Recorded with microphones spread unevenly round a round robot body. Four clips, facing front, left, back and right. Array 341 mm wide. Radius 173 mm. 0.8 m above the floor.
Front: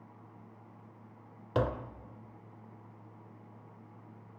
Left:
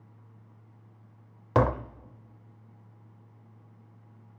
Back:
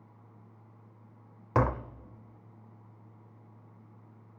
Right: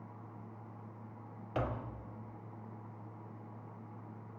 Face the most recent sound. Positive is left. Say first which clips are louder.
# left 13 dB, back 3 dB
turn(degrees=105)